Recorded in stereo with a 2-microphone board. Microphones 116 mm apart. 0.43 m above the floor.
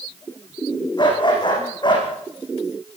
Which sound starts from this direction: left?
A dog barking, at 1.0 s.